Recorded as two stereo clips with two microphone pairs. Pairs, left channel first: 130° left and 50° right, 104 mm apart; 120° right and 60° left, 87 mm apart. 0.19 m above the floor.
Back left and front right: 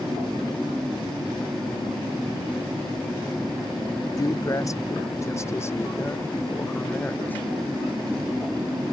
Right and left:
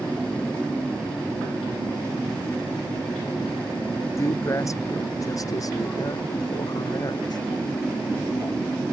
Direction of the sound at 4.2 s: 175° right.